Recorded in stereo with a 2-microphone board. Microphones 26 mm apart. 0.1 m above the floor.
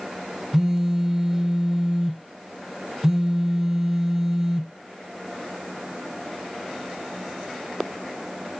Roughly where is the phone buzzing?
Centre.